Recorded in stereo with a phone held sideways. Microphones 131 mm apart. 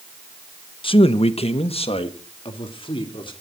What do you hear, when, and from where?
0.8 s a man speaking: 40° left (ahead or behind), 0.9 m